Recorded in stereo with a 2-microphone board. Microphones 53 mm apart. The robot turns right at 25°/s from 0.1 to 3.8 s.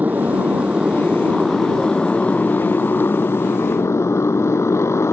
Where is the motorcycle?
30° right; by 5.1 s 60° left.